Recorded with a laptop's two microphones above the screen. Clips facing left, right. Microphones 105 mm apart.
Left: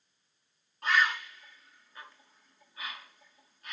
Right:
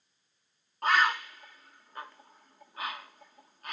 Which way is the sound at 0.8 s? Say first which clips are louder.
Right 3 dB; 50° right (ahead or behind).